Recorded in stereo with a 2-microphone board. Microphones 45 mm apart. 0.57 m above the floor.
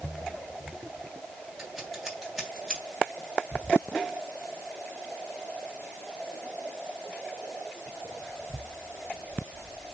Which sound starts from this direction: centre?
Scissors, at 1.6 s.